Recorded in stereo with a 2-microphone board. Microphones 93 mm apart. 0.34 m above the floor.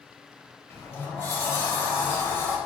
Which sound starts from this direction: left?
A sliding door, at 0.7 s.